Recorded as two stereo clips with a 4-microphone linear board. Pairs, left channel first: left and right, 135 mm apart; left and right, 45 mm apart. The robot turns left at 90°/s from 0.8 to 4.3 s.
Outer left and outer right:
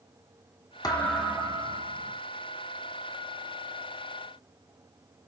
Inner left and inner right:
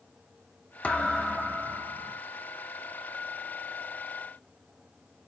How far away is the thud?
About 1.5 m.